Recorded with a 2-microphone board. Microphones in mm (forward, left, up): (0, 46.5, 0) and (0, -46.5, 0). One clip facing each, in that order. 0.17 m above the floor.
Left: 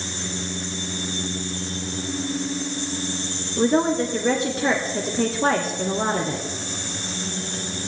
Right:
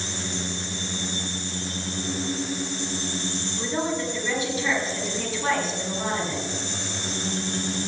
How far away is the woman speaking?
About 2 m.